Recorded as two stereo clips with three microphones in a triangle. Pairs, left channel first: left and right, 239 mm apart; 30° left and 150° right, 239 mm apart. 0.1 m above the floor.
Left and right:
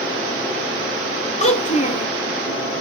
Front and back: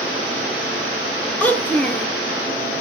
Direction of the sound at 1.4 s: 105° left.